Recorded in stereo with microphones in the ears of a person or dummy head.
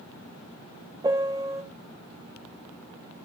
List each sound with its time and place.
1.0 s a piano: 20° right (ahead or behind), 0.6 m